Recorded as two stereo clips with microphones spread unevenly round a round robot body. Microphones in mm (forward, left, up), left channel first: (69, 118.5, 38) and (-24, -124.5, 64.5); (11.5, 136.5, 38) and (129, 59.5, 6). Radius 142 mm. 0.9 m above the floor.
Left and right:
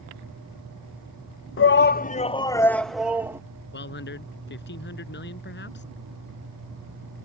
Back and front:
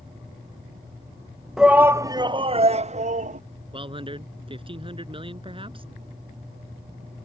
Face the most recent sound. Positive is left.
turn(degrees=20)